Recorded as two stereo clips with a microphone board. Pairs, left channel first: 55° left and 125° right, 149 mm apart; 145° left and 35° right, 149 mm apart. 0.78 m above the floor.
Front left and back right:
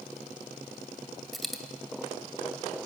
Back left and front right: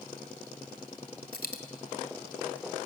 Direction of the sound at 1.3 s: 145° left.